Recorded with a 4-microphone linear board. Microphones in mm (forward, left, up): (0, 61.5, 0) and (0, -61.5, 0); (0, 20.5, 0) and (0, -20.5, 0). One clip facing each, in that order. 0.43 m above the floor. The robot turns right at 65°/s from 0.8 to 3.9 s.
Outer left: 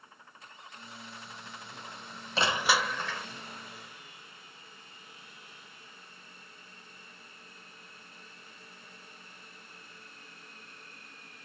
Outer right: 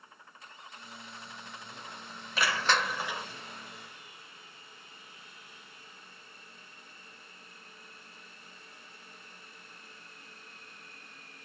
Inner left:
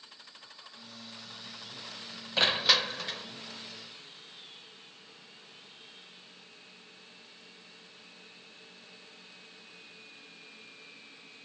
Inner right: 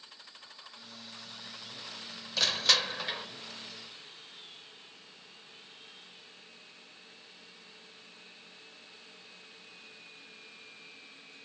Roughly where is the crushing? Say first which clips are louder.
Outer left 1 dB, inner left 2 dB; behind left.